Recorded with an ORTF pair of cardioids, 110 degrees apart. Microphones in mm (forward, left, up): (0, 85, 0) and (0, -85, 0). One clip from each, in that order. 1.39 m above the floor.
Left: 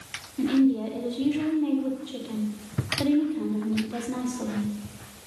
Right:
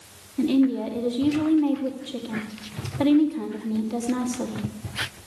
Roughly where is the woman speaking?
Ahead right.